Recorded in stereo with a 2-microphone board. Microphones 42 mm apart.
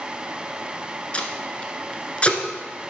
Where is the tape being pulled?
30° left (ahead or behind), 1.0 m.